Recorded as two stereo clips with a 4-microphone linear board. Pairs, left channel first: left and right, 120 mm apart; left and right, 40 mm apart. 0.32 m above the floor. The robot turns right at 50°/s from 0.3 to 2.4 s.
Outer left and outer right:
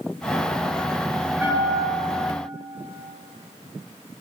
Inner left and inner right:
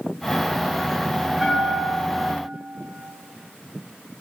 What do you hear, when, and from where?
1.4 s a bell: 165° right, 8 m; by 2.3 s 125° right, 8 m